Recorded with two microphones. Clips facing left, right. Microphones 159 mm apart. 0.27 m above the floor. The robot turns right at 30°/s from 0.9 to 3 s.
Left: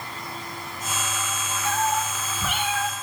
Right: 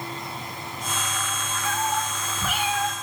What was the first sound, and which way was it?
A cat meowing, 155° left.